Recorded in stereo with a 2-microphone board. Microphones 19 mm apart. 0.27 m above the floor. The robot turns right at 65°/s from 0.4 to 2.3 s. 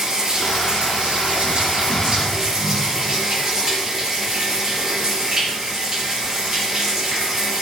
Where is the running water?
145° right, 4 m; by 7.6 s 20° right, 4 m.